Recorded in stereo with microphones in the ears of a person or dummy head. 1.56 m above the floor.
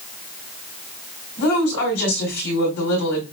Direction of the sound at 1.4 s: 60° left (ahead or behind).